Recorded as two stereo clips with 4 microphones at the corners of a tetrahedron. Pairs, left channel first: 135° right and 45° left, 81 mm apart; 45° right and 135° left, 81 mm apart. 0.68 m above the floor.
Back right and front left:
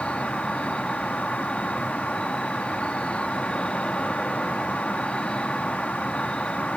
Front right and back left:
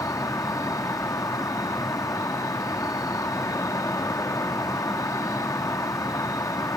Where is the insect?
60° right.